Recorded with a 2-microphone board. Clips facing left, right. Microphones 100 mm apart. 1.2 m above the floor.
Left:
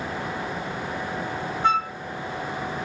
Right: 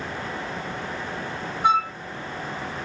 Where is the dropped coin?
I don't hear a dropped coin.